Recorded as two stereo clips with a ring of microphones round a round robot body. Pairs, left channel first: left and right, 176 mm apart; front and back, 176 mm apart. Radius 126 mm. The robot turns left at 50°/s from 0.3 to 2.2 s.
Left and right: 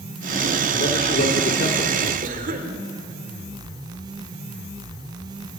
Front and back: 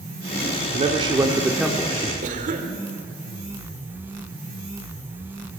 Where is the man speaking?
135° left, 1.6 m; by 2.1 s 65° left, 1.6 m.